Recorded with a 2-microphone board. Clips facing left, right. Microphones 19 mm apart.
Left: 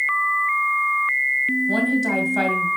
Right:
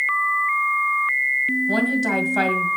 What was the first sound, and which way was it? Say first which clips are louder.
A woman speaking: even; 15° right (ahead or behind).